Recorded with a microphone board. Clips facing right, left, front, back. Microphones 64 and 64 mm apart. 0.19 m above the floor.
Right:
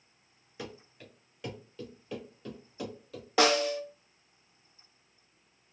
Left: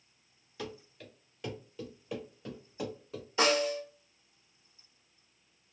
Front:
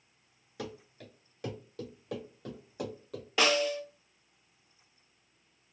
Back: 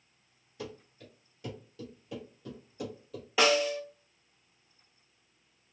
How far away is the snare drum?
About 0.8 m.